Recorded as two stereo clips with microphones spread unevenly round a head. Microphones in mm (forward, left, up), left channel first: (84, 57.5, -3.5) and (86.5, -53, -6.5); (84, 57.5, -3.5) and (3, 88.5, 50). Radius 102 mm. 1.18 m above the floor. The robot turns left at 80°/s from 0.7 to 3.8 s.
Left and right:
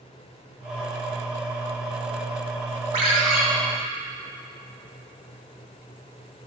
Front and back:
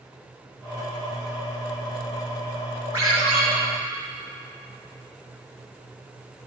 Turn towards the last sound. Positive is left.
turn(degrees=165)